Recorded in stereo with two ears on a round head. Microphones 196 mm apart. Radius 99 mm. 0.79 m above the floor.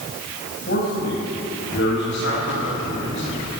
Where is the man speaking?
50° left (ahead or behind), 6 m; by 3.5 s 65° left (ahead or behind), 7.5 m.